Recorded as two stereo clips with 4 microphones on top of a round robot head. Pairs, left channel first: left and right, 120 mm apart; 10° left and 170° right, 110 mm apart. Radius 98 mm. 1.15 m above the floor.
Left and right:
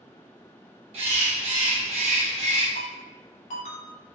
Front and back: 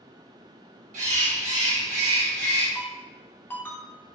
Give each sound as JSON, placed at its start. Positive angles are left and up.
{"t": 0.9, "sound": "a bird", "azimuth_deg": -140, "distance_m": 1.8}
{"t": 2.8, "sound": "a ringtone", "azimuth_deg": 80, "distance_m": 2.5}